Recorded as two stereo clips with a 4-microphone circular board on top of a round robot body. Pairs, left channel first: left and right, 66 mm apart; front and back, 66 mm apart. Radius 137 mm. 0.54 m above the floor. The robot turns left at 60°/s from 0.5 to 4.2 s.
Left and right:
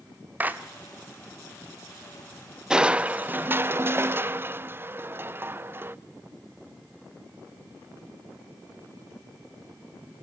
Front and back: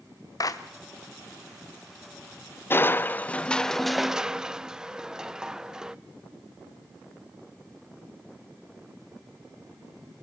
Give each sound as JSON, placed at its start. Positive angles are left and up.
{"t": 0.4, "sound": "a clap", "azimuth_deg": -25, "distance_m": 1.1}
{"t": 2.7, "sound": "crushing", "azimuth_deg": -15, "distance_m": 0.6}